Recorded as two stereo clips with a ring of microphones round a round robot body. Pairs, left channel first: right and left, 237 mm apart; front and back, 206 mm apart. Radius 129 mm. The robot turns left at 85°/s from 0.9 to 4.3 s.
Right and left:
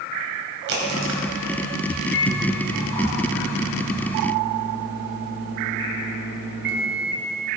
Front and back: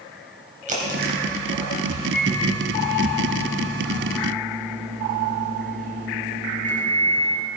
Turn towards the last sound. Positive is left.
turn(degrees=130)